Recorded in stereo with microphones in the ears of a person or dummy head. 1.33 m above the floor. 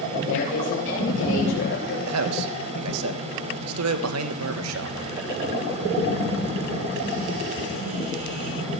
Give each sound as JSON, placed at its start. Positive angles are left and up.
{"t": 0.2, "sound": "a woman speaking", "side_deg": 55, "distance_m": 2.5}
{"t": 2.1, "sound": "a man speaking", "side_deg": -80, "distance_m": 1.5}